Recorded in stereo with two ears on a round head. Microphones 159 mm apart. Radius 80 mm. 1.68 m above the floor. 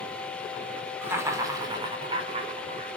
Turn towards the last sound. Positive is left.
turn(degrees=-40)  # may be behind; listen again after turning